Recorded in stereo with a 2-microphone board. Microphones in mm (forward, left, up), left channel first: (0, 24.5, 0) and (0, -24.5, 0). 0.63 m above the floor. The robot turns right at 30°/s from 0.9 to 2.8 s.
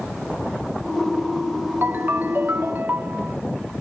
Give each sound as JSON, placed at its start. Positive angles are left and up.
{"t": 1.8, "sound": "a ringtone", "side_deg": -50, "distance_m": 0.7}